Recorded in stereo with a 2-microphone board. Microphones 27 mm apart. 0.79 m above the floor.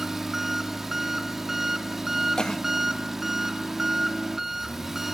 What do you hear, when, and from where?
0.0 s an engine running: 10° right (ahead or behind), 1.0 m
2.4 s a cough: 30° left (ahead or behind), 0.6 m